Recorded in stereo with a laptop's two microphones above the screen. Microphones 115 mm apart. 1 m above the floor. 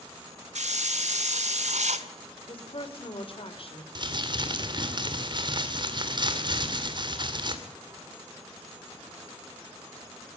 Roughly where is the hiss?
Right.